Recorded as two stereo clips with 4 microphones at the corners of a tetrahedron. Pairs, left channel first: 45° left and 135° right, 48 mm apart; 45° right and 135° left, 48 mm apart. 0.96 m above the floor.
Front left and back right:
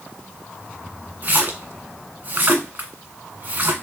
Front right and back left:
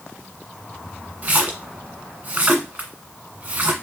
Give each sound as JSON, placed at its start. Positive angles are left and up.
{"t": 1.2, "sound": "a splash", "azimuth_deg": -170, "distance_m": 1.6}